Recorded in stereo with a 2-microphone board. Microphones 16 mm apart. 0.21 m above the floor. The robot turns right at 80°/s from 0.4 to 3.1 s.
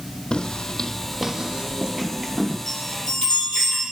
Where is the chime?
70° left, 6 m; by 3.8 s 105° left, 6 m.